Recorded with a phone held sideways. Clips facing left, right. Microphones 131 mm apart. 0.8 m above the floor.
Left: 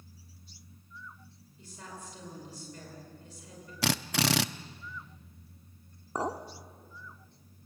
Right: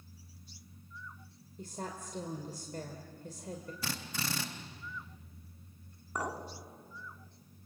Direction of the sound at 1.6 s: 50° right (ahead or behind).